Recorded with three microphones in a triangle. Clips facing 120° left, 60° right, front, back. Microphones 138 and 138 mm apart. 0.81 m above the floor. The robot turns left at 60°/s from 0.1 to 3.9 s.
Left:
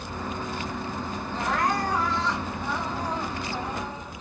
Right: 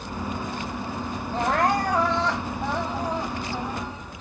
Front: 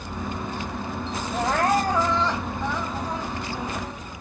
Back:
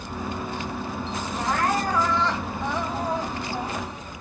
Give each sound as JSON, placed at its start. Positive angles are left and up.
{"t": 1.3, "sound": "crying", "azimuth_deg": -25, "distance_m": 2.0}